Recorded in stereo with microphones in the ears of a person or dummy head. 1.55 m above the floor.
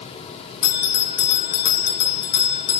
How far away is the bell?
About 1.0 m.